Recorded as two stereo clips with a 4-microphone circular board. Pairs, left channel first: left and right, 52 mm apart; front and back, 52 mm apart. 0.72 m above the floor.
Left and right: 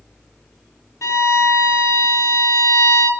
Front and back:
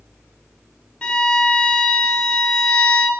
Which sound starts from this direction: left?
A violin, at 1.0 s.